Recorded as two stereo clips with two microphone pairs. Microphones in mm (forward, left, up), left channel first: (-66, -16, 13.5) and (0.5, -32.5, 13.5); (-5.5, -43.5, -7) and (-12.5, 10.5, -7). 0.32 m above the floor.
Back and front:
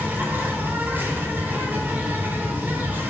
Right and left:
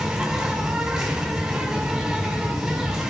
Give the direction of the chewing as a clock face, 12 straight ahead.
I don't hear chewing.